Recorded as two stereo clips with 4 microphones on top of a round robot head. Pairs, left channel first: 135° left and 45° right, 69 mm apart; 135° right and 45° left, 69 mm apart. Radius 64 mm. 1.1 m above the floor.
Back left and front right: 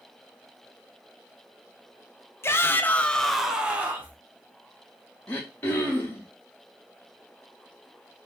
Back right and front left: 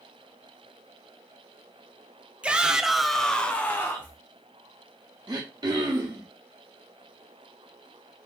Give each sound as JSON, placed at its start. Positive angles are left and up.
{"t": 2.4, "sound": "a shout", "azimuth_deg": 115, "distance_m": 0.8}
{"t": 5.3, "sound": "throat clearing", "azimuth_deg": 75, "distance_m": 0.7}